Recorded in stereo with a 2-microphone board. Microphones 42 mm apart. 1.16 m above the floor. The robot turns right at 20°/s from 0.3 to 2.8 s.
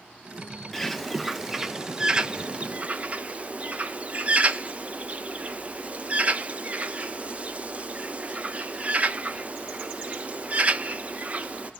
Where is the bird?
5° left (ahead or behind), 0.8 m; by 11.7 s 35° right (ahead or behind), 0.8 m.